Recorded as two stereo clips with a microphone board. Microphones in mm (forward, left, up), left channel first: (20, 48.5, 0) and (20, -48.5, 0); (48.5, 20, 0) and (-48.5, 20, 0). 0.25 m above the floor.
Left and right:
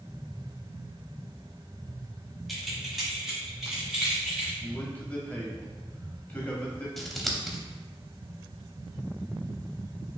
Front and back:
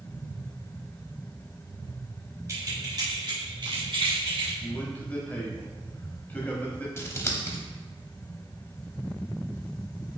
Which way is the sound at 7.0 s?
Straight ahead.